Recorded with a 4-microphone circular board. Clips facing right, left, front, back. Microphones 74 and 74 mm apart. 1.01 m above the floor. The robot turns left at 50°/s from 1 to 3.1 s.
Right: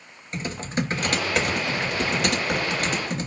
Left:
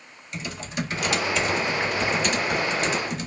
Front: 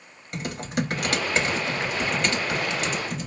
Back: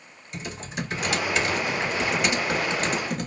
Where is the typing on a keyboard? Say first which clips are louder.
Right 4 dB, front 5 dB; 35° right, 1.0 m; by 3.3 s 140° right, 1.0 m.